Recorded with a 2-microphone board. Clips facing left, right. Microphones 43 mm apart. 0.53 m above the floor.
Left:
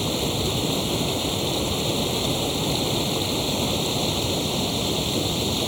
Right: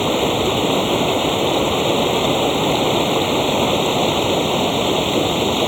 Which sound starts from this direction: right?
Running water, at 0.0 s.